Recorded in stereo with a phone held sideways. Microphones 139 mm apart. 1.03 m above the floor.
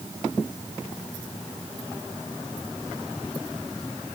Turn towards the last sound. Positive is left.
No sound to turn to.